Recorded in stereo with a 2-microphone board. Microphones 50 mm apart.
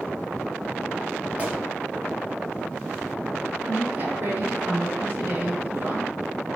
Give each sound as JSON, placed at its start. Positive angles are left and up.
{"t": 1.4, "sound": "a gunshot", "side_deg": -25, "distance_m": 3.5}
{"t": 3.6, "sound": "a woman speaking", "side_deg": -55, "distance_m": 2.5}